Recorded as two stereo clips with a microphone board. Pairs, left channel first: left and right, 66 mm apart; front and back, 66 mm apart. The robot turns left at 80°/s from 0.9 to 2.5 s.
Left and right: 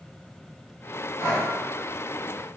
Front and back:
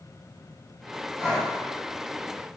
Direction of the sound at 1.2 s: 105° left.